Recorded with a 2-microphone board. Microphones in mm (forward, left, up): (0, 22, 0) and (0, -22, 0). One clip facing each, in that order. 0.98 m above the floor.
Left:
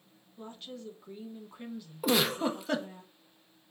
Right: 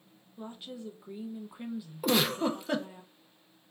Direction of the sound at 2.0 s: 5° left (ahead or behind).